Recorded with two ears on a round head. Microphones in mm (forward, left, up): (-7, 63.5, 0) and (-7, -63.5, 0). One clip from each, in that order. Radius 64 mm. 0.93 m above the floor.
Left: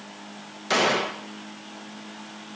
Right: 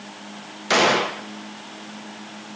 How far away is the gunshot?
About 0.7 m.